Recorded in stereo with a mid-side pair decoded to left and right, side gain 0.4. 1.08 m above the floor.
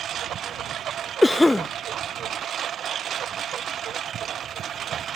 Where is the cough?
15° left.